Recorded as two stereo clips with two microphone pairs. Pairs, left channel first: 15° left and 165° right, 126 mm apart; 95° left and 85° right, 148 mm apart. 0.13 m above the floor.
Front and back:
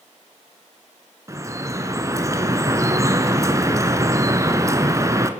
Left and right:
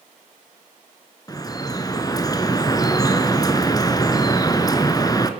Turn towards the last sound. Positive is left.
turn(degrees=145)